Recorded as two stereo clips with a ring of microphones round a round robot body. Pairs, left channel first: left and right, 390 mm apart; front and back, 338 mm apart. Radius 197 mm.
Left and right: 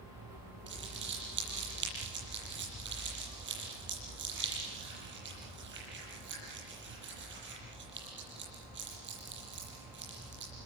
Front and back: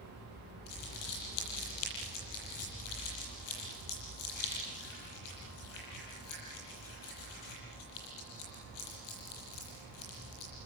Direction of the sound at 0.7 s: 25° right.